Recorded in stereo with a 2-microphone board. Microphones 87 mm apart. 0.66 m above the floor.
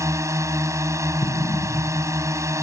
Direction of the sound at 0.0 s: 35° right (ahead or behind).